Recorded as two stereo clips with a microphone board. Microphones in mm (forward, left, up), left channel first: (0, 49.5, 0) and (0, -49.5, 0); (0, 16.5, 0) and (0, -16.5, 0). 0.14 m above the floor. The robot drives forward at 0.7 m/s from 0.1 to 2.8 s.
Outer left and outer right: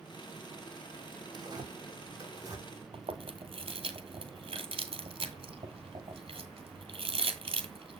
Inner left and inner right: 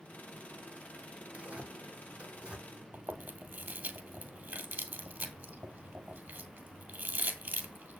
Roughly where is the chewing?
Right.